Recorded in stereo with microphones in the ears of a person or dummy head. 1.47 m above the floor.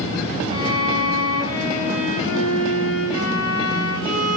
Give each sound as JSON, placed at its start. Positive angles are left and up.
{"t": 0.5, "sound": "a violin", "side_deg": 30, "distance_m": 1.3}